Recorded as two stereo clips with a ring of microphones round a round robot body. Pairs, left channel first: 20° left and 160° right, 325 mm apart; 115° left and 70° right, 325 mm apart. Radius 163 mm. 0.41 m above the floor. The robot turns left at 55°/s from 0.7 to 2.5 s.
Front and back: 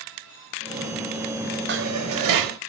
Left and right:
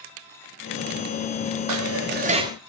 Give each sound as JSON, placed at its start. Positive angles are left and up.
{"t": 1.7, "sound": "dishes clattering", "azimuth_deg": -100, "distance_m": 1.5}